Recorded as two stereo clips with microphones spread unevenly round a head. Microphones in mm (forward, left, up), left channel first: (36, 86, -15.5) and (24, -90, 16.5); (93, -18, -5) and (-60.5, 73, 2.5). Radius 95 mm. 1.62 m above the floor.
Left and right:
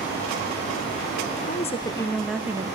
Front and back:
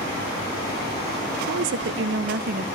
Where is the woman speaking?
140° left, 0.9 m; by 2.8 s 160° right, 1.0 m.